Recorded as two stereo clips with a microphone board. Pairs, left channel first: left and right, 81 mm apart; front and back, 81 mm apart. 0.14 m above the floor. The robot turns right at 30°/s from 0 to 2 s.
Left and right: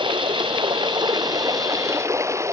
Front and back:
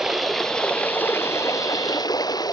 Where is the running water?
95° right; by 2.5 s 35° right.